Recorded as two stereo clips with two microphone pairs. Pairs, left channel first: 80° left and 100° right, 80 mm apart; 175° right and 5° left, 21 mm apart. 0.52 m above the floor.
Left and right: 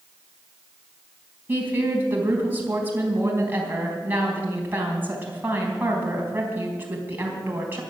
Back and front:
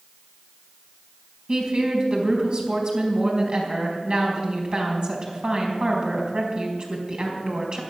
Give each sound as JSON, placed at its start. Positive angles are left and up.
{"t": 1.5, "sound": "a woman speaking", "azimuth_deg": -30, "distance_m": 4.0}